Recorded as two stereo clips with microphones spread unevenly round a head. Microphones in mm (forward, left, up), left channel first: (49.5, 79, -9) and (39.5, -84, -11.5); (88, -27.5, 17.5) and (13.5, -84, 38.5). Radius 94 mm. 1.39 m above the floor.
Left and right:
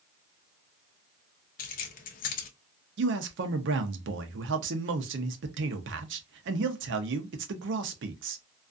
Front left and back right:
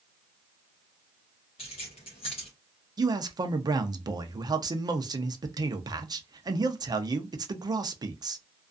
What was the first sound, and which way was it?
Keys jangling, 95° left.